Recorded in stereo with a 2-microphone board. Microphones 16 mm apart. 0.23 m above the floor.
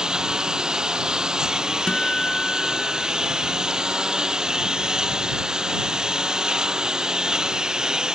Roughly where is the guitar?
Left.